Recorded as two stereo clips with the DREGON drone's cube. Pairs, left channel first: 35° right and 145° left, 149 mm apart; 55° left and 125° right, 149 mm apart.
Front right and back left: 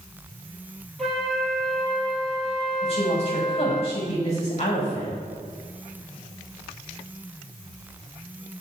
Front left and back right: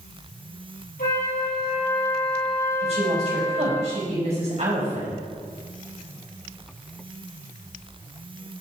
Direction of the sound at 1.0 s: 55° left.